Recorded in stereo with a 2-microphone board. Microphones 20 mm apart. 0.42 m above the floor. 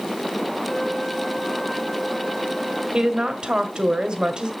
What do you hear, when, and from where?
0.7 s a flute: 5° left (ahead or behind), 3 m
2.9 s a woman speaking: 50° right (ahead or behind), 1.5 m